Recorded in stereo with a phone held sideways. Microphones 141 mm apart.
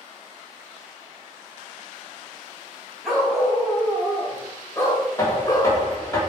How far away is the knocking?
About 3 m.